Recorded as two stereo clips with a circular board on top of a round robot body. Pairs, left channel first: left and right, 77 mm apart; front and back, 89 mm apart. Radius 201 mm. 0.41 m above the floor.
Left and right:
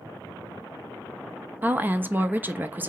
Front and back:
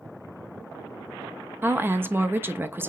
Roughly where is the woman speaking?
Behind right.